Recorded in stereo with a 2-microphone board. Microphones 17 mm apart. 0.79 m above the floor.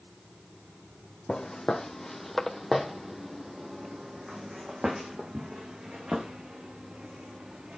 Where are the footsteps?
30° left (ahead or behind), 1.4 m; by 7.8 s 75° right (ahead or behind), 3.5 m.